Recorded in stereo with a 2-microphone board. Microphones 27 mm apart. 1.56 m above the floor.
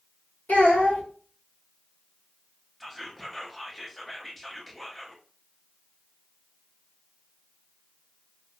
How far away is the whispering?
About 0.6 m.